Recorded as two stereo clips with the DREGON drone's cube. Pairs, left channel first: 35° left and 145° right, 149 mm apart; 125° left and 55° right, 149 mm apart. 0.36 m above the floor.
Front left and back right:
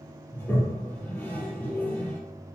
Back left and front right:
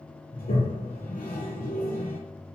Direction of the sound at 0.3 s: 110° left.